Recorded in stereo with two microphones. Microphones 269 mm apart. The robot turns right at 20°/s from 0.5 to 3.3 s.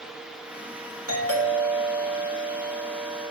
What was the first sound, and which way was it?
A doorbell, 95° right.